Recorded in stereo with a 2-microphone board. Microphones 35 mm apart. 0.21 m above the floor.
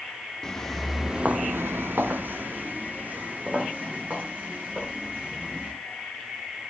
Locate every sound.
0.4 s footsteps: 15° left (ahead or behind), 1.6 m; by 5.7 s 45° right (ahead or behind), 7 m